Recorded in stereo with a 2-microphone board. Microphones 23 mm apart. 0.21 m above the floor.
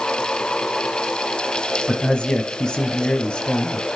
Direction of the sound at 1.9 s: 40° left (ahead or behind).